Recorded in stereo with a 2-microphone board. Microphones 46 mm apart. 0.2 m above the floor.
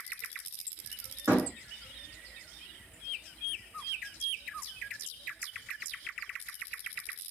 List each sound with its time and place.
1.3 s a door slam: 75° right (ahead or behind), 6.5 m